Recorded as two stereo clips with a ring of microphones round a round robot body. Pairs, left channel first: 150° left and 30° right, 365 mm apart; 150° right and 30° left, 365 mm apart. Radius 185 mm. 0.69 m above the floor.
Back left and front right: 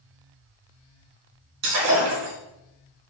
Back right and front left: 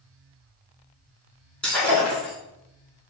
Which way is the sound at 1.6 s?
65° right.